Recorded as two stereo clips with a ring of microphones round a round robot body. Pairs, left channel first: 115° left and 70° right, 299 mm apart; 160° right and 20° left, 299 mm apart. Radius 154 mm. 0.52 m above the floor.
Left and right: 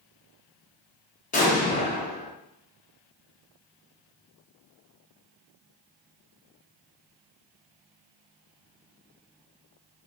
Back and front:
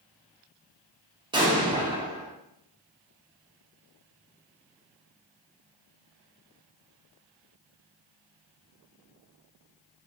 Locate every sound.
1.3 s an explosion: 80° left, 0.7 m